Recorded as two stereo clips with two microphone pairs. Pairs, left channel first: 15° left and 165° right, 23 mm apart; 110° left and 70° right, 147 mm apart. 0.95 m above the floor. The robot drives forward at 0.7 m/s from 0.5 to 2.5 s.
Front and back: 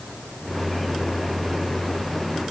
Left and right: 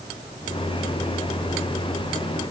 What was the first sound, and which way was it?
Only background noise.